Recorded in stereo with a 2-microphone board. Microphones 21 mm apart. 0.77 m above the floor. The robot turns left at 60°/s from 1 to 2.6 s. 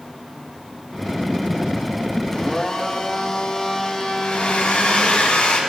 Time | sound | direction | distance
2.3 | a blender | 15° left (ahead or behind) | 1.0 m
4.2 | a hair dryer | 75° left (ahead or behind) | 2 m